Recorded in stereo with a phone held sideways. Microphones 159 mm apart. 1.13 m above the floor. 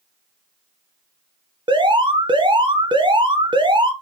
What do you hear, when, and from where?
1.7 s an alarm: 30° right (ahead or behind), 0.6 m